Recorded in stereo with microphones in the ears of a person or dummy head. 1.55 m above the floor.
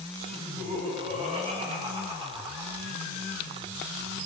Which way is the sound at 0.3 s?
45° right (ahead or behind).